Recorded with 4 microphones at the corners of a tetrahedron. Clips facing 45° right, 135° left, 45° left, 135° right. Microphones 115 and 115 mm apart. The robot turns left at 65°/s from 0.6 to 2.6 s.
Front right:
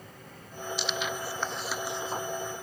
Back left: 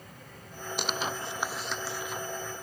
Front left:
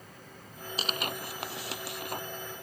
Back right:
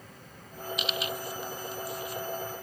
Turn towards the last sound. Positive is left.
turn(degrees=-20)